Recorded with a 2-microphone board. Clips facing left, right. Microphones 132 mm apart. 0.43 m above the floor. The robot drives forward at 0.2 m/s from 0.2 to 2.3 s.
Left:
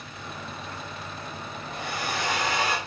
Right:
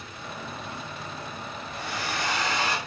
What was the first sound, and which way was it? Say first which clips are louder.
A hair dryer: left 2 dB; 50° left (ahead or behind).